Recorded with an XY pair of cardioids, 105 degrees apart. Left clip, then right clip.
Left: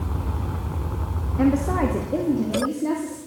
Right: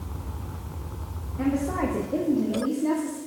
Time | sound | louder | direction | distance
1.4 | a woman speaking | left 5 dB | 50° left | 1.0 m